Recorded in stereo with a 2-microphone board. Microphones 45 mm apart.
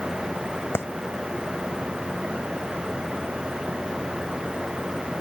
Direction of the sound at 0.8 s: 60° left (ahead or behind).